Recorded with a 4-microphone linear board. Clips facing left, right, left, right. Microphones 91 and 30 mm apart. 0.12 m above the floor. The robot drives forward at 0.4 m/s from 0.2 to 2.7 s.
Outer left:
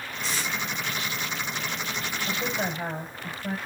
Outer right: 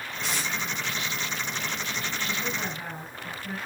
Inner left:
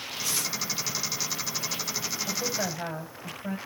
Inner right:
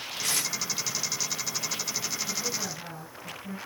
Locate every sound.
0.2 s tape being pulled: 70° right (ahead or behind), 5.5 m
2.3 s a woman speaking: 80° left, 7.5 m